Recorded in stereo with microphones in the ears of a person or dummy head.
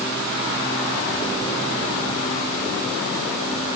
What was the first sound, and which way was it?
Only background noise.